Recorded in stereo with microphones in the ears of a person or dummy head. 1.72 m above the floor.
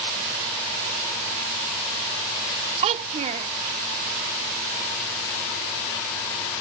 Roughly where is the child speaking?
Right.